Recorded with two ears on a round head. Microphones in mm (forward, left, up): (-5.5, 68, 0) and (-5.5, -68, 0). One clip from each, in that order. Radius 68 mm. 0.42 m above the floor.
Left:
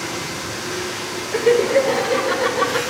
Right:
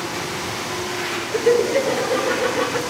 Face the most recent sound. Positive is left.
turn(degrees=15)  # may be behind; listen again after turning